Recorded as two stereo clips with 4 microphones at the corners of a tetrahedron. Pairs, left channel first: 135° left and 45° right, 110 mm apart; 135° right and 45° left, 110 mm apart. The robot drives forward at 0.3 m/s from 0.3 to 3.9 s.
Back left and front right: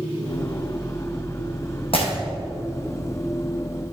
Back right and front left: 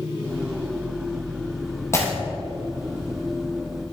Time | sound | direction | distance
1.9 | breaking glass | 160° left | 3 m